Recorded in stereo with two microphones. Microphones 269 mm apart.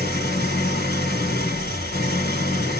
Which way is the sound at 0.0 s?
40° left (ahead or behind).